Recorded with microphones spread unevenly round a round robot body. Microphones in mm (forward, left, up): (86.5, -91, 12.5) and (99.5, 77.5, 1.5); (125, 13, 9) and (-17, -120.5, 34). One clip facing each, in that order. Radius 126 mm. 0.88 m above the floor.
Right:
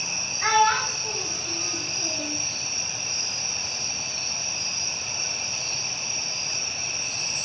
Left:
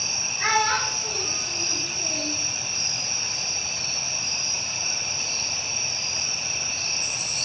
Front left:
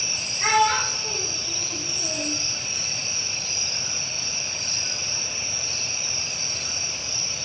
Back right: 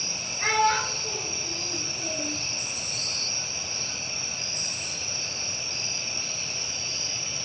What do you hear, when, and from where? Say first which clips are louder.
0.4 s a child speaking: right 4 dB, front left 3 dB; 135° left, 2.5 m